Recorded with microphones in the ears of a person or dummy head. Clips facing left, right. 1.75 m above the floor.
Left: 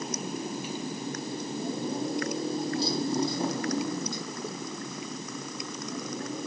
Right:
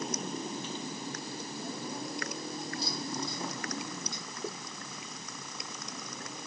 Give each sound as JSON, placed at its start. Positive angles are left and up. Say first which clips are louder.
{"t": 0.0, "sound": "a motorcycle", "louder": "left 3 dB", "side_deg": 0}